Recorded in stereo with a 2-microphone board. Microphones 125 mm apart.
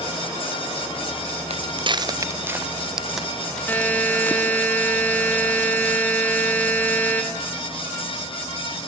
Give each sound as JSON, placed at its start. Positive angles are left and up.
{"t": 1.5, "sound": "footsteps", "side_deg": -55, "distance_m": 1.4}
{"t": 3.7, "sound": "a buzzer", "side_deg": 15, "distance_m": 5.5}